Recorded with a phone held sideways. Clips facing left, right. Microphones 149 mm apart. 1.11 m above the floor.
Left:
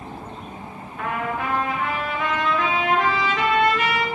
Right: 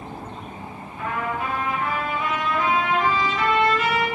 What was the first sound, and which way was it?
A trumpet, 80° left.